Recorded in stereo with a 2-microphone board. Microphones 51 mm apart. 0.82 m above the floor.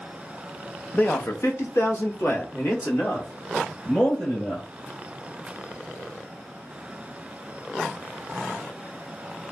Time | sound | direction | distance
0.9 | a man speaking | 35° left (ahead or behind) | 0.6 m